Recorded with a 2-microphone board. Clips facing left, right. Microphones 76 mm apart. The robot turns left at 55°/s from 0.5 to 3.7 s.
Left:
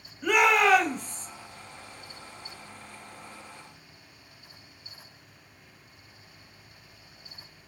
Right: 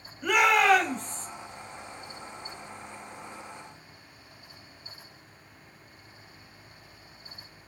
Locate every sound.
0.2 s a shout: centre (ahead or behind), 1.0 m; by 1.3 s 10° left (ahead or behind), 1.0 m